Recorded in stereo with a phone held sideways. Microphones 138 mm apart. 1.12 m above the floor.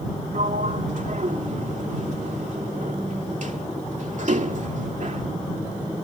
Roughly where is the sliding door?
Right.